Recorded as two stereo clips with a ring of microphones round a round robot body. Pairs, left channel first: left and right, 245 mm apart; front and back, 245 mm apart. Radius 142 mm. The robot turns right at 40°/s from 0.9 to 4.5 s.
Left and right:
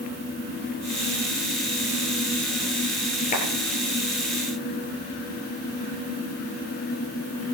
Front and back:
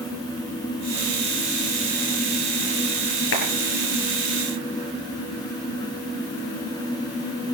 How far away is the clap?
About 7 m.